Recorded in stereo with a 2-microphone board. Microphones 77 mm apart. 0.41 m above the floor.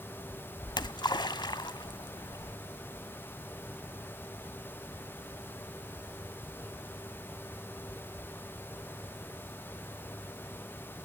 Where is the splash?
75° left (ahead or behind), 0.6 m.